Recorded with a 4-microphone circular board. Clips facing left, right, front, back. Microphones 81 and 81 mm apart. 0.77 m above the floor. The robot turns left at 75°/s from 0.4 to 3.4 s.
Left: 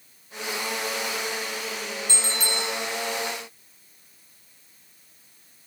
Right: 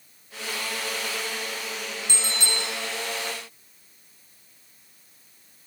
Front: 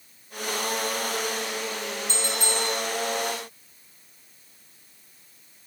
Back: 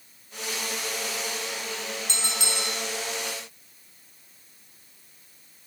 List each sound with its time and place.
2.1 s a bell: 160° right, 2.5 m; by 2.8 s 150° left, 2.5 m